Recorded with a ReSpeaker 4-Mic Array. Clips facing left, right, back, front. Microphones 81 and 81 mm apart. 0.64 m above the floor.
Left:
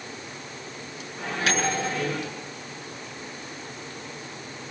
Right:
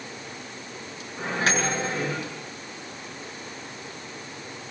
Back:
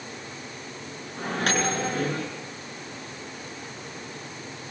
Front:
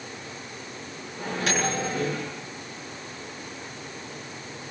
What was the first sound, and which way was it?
A microwave, 145° right.